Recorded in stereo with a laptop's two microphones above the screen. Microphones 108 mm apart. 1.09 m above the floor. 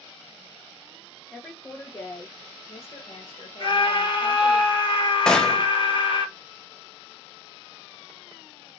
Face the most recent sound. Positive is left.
turn(degrees=5)  # may be behind; listen again after turning